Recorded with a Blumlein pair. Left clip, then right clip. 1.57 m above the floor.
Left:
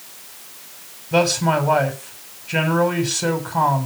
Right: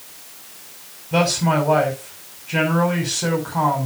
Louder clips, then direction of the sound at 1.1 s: Left 1 dB; 5° left.